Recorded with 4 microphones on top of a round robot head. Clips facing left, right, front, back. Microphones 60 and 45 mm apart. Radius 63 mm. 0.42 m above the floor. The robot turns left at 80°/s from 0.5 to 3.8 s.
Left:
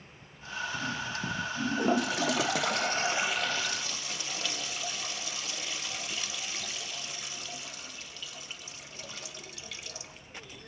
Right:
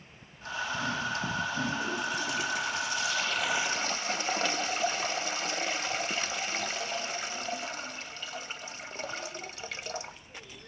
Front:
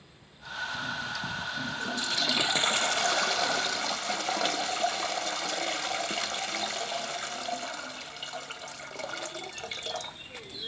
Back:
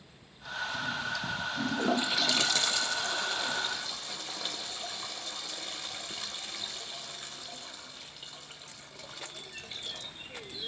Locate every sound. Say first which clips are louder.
1.6 s a toilet flushing: left 4 dB, back 7 dB; 145° left, 0.5 m; by 10.2 s 35° right, 0.5 m